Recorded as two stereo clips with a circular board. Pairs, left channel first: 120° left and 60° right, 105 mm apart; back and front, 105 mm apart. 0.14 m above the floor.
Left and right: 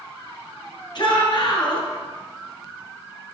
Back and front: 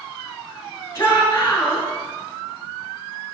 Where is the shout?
130° left, 2.5 m.